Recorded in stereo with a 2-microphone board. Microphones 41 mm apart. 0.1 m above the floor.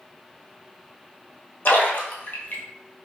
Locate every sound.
1.6 s a splash: 55° left (ahead or behind), 1.2 m